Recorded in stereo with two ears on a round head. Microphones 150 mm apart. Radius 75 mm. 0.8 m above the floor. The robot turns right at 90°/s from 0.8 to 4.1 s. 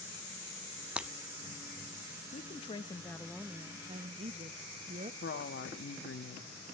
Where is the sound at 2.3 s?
90° left, 0.8 m; by 5.1 s 110° right, 0.8 m.